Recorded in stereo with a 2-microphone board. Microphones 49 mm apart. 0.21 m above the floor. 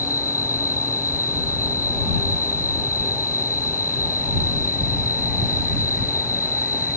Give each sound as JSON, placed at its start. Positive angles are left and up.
{"t": 0.0, "sound": "an insect", "side_deg": 85}